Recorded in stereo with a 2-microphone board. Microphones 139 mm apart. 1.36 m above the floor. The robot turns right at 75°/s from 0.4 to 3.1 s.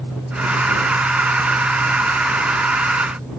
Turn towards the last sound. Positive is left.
No sound to turn to.